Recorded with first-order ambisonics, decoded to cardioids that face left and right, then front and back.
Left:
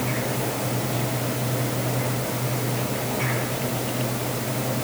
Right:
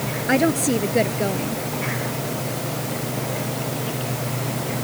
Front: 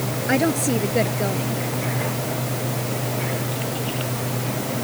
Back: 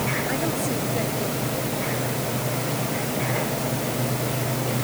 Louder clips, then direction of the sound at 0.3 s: Right 8 dB, front 5 dB; 60° right.